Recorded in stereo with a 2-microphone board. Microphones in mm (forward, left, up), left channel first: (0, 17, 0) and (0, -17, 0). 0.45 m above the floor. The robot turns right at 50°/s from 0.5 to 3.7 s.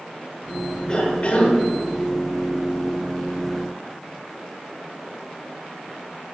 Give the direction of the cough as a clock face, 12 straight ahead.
11 o'clock.